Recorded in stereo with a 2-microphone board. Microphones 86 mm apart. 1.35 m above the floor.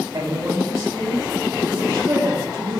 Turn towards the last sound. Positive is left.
turn(degrees=-35)  # may be behind; listen again after turning